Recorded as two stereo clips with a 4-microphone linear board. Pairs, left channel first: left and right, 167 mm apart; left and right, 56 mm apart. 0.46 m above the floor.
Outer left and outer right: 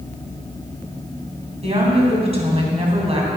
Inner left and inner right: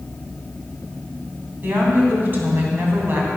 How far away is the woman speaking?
About 3 m.